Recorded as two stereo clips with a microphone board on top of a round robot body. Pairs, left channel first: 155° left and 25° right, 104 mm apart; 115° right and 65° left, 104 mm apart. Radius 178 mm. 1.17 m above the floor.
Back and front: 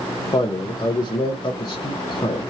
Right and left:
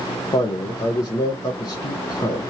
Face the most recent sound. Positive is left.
turn(degrees=-160)